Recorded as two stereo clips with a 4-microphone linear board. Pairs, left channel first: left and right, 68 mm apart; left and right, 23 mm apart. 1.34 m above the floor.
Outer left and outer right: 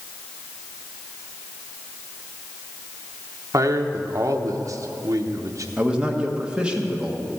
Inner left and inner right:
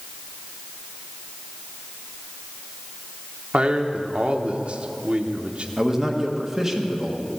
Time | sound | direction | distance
3.5 | a man speaking | 55° right (ahead or behind) | 0.9 m
5.8 | a man speaking | 15° right (ahead or behind) | 1.4 m